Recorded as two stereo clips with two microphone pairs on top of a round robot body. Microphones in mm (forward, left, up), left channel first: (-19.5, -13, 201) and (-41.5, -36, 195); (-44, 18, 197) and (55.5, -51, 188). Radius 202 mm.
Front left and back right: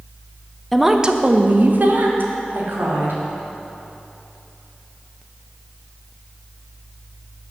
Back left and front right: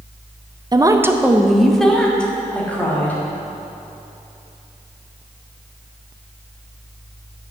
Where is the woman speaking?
55° right, 0.8 m; by 3.2 s 135° right, 3 m.